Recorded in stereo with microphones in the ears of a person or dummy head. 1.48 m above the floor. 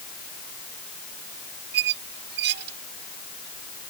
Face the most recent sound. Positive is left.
turn(degrees=-55)  # may be behind; listen again after turning